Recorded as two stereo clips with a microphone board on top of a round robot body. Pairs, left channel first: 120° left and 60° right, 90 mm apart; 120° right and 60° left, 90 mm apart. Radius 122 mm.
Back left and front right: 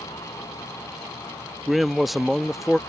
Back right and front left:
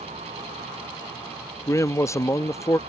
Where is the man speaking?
150° right.